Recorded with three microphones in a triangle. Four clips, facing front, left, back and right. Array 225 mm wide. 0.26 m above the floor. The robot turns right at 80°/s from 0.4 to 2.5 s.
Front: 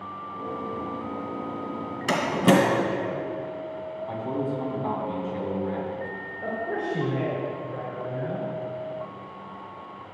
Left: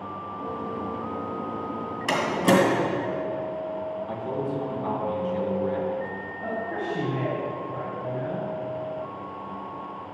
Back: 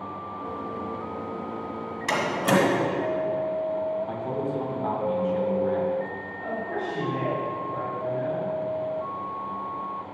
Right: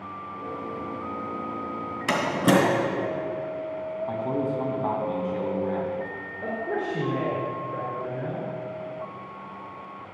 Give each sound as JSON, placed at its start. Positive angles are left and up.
{"t": 2.1, "sound": "a door slam", "azimuth_deg": -70, "distance_m": 2.0}
{"t": 4.1, "sound": "a man speaking", "azimuth_deg": -110, "distance_m": 2.5}
{"t": 6.4, "sound": "a man speaking", "azimuth_deg": -65, "distance_m": 3.0}